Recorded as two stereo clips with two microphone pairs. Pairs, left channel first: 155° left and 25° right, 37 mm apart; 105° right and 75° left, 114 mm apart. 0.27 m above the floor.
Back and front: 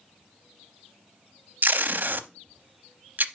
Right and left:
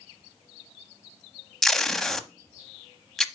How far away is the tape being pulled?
About 0.6 m.